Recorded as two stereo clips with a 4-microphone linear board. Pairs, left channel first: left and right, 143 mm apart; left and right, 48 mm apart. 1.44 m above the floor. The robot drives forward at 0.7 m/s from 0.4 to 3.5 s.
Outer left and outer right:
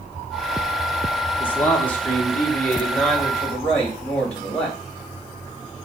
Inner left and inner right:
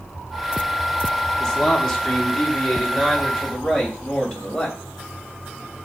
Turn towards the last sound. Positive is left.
turn(degrees=5)  # may be behind; listen again after turning